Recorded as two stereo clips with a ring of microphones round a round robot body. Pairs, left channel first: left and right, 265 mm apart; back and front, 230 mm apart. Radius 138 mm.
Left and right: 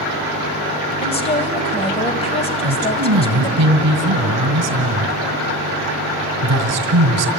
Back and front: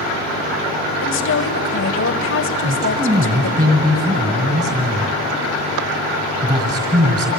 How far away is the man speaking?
About 2.5 m.